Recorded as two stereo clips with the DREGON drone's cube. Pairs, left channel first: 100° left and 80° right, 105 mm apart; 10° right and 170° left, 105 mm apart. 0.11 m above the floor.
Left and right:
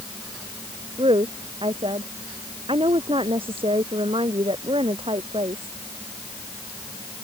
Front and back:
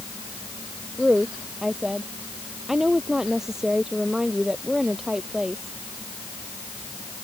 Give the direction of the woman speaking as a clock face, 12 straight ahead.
3 o'clock.